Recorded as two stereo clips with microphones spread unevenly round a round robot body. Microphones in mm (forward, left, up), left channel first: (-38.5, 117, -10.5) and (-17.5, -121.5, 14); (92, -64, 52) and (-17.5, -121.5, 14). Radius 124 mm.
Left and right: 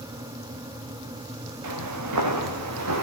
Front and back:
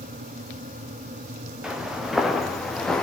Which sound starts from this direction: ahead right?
Footsteps, at 1.6 s.